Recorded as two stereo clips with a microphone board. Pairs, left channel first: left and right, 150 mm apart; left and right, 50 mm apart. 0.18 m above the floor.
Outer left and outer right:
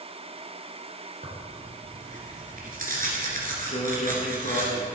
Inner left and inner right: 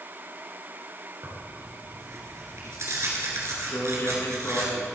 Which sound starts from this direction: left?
A man speaking, at 3.7 s.